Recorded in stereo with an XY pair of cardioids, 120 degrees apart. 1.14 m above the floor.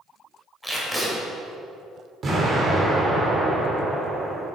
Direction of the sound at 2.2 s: 40° right.